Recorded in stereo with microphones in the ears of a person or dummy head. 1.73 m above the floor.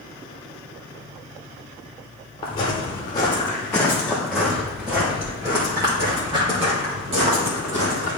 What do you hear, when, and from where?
2.4 s footsteps: 25° left (ahead or behind), 2.0 m; by 8.2 s 40° right (ahead or behind), 3 m